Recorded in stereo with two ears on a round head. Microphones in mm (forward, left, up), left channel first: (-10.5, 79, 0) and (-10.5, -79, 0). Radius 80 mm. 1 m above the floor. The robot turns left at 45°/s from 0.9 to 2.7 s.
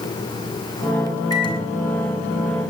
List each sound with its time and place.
1.3 s a microwave: 160° left, 5 m; by 2.7 s 95° left, 5 m